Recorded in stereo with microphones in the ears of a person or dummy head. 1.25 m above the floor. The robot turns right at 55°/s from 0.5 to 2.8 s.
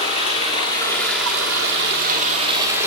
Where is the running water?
145° right, 1.5 m; by 2.9 s 20° right, 1.5 m.